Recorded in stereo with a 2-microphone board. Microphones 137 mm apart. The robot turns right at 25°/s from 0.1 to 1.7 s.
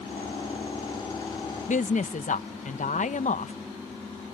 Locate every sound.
1.7 s a woman speaking: 65° left (ahead or behind)